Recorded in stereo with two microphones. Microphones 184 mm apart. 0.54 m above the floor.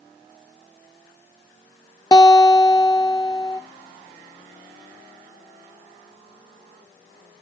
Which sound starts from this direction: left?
A guitar, at 2.1 s.